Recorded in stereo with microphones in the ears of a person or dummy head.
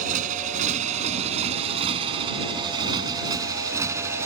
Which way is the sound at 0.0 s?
45° right (ahead or behind).